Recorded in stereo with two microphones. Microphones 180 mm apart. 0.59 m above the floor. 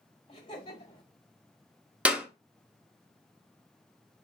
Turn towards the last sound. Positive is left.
turn(degrees=-5)  # may be behind; listen again after turning